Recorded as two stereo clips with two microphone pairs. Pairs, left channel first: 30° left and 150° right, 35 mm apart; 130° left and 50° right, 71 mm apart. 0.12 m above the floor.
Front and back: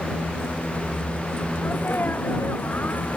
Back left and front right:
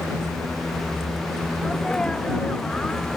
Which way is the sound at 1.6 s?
50° left.